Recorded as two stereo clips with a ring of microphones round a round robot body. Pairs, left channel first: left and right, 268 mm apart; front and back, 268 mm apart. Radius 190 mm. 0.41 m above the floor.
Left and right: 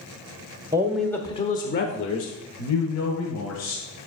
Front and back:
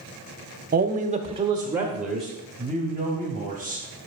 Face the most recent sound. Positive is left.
turn(degrees=75)